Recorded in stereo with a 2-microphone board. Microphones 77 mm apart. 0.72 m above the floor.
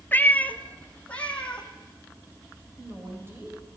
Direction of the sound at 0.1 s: 25° left (ahead or behind).